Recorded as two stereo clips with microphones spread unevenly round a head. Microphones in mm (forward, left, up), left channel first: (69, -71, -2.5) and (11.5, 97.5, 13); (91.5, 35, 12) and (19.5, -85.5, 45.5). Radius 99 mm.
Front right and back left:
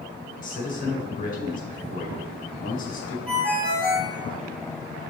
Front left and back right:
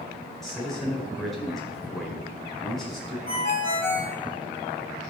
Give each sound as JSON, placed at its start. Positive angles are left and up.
{"t": 0.4, "sound": "a man speaking", "azimuth_deg": -30, "distance_m": 4.5}
{"t": 3.3, "sound": "a ringtone", "azimuth_deg": 25, "distance_m": 5.5}